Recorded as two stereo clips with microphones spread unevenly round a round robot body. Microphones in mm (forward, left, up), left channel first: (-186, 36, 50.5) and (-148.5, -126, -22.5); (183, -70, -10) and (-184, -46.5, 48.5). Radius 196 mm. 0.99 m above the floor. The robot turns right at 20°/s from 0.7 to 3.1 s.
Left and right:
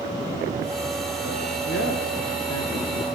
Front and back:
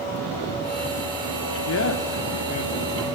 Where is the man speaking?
50° left, 1.8 m; by 3.1 s 80° left, 1.8 m.